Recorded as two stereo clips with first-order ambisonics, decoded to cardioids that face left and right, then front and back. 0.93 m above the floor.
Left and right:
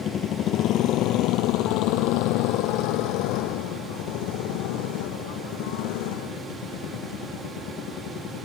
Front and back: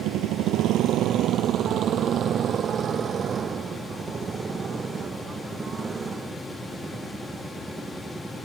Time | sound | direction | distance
0.0 | a motorcycle | 150° left | ?